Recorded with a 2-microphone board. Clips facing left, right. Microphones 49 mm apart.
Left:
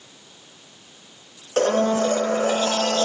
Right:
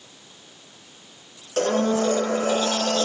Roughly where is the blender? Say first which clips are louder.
Left 2 dB; left.